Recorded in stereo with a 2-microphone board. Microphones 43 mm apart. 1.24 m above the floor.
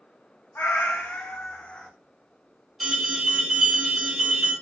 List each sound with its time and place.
0.6 s a cat meowing: 55° left (ahead or behind), 0.7 m; by 1.9 s 20° left (ahead or behind), 0.8 m
2.8 s an alarm: 10° right (ahead or behind), 1.9 m